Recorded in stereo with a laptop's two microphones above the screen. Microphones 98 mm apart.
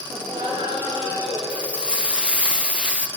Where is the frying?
10° right (ahead or behind), 0.6 m.